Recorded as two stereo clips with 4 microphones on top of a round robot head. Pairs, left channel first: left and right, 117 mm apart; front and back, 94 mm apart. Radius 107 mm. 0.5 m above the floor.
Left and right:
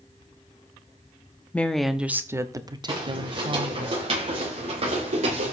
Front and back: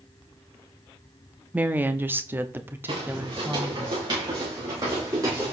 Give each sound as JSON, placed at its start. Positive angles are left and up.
{"t": 1.5, "sound": "a woman speaking", "azimuth_deg": 145, "distance_m": 0.9}
{"t": 2.9, "sound": "footsteps", "azimuth_deg": -140, "distance_m": 6.5}